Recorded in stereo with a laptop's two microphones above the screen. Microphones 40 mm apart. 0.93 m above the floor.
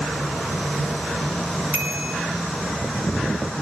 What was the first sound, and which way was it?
A bicycle bell, 40° right (ahead or behind).